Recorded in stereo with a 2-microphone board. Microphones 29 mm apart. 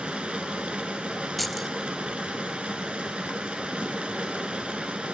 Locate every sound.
0.0 s running water: 40° right (ahead or behind), 1.5 m
1.4 s keys jangling: 5° left (ahead or behind), 0.6 m